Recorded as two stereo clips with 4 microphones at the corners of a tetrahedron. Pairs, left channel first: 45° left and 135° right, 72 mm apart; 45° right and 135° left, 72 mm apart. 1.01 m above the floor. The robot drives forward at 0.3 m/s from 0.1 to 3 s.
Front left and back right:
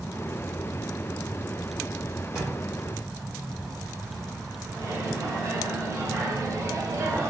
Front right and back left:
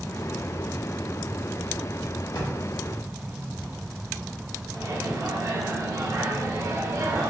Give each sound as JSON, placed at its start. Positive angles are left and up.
{"t": 2.4, "sound": "a drawer", "azimuth_deg": -55, "distance_m": 1.1}
{"t": 4.7, "sound": "a microwave", "azimuth_deg": 180, "distance_m": 0.6}